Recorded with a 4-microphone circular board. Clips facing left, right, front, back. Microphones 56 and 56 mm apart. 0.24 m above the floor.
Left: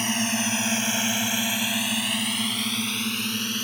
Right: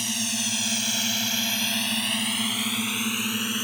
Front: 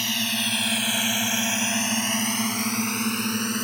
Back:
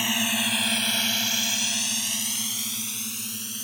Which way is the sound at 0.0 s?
115° left.